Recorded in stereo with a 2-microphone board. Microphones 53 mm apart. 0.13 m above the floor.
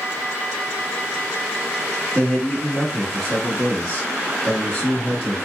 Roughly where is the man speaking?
Centre.